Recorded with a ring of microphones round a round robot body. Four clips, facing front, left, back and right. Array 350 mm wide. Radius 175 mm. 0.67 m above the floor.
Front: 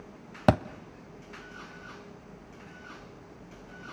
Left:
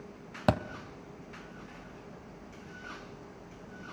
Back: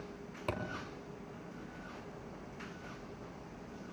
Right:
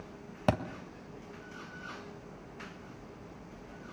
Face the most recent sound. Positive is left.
turn(degrees=5)